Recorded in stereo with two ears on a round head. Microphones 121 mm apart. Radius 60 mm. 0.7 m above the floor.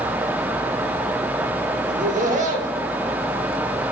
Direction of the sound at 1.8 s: 60° right (ahead or behind).